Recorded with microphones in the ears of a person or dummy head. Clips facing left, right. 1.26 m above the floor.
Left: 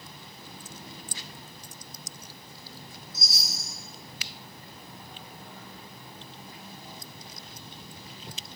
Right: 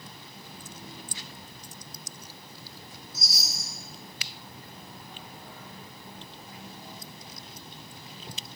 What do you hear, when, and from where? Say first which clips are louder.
3.1 s a chime: right 1 dB; 60° left (ahead or behind), 4 m